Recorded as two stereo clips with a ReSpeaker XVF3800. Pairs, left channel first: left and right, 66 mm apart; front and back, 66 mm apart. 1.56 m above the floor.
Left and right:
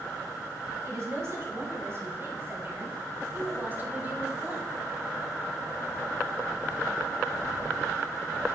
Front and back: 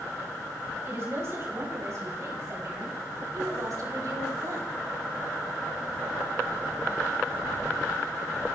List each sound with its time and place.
0.8 s a woman speaking: 130° right, 7.5 m; by 4.7 s 160° right, 6 m